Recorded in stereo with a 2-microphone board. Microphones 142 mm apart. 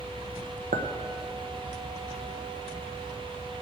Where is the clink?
70° right (ahead or behind), 0.9 m.